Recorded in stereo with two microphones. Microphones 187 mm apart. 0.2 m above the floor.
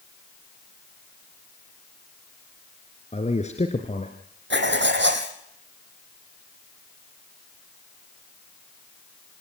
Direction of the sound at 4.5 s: 75° right (ahead or behind).